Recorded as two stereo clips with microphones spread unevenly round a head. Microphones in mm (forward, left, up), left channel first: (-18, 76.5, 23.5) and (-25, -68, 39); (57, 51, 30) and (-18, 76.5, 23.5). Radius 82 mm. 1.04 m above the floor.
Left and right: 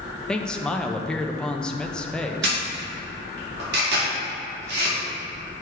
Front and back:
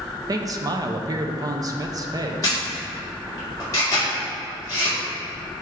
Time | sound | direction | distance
0.3 | a man speaking | 165° left | 0.6 m
2.4 | a camera shutter | 85° right | 2.0 m